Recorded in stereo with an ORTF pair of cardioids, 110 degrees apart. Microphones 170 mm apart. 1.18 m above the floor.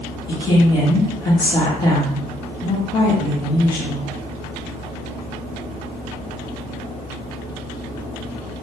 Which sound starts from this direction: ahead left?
A woman speaking, at 0.3 s.